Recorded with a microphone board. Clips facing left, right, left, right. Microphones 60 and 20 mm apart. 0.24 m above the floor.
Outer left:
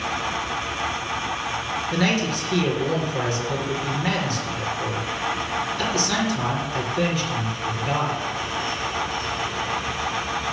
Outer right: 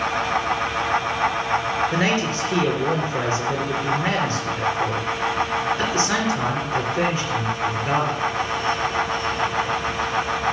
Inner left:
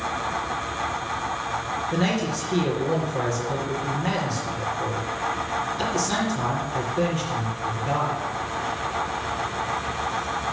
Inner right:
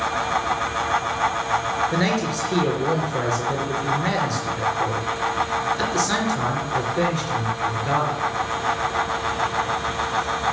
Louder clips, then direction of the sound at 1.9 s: Outer right 1 dB, inner right 2 dB; 30° right (ahead or behind).